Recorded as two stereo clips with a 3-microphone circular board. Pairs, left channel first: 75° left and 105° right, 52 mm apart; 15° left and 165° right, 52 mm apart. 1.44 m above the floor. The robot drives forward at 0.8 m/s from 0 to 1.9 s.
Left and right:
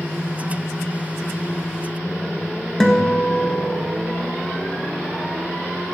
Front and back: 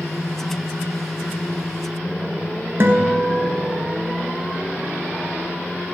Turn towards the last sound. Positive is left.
turn(degrees=155)